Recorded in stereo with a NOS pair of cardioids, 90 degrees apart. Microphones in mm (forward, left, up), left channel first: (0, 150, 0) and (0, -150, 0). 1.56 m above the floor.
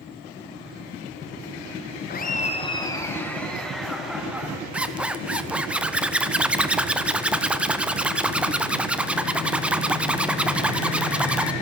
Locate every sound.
2.1 s laughter: 35° left, 1.1 m; by 4.6 s 5° right, 2.5 m
4.7 s a zipper: 5° right, 0.6 m